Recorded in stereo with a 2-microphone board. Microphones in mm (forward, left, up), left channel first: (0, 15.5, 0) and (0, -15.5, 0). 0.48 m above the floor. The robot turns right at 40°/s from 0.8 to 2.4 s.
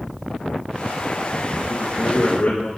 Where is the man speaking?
80° left, 6 m; by 2.7 s 70° left (ahead or behind), 6 m.